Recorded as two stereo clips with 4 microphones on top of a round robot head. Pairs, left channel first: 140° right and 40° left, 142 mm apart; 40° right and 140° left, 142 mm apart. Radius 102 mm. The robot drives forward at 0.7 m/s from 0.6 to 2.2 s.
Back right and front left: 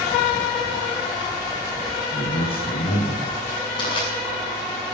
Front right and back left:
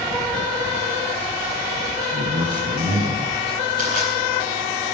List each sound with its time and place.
2.1 s a man speaking: straight behind, 4 m
3.8 s crushing: 165° left, 7 m